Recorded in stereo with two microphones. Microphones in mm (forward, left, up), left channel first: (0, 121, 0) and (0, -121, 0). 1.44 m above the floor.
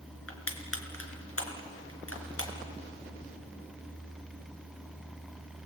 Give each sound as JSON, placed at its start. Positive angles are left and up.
{"t": 0.3, "sound": "crushing", "side_deg": 70, "distance_m": 3.5}